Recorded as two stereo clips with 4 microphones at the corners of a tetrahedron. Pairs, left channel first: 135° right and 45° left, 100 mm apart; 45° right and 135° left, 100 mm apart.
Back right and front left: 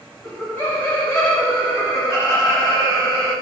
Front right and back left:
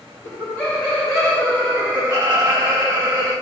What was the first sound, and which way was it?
Laughter, 70° right.